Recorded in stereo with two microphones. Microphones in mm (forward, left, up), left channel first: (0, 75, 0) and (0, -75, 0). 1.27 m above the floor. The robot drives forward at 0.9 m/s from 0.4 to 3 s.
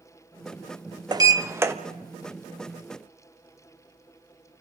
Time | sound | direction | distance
1.1 | a sliding door | 30° right (ahead or behind) | 0.7 m